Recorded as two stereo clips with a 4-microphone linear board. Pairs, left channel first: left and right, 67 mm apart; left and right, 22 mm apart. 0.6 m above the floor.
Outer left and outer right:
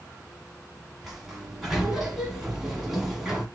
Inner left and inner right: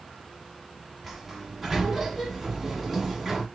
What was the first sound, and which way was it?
A sliding door, 5° right (ahead or behind).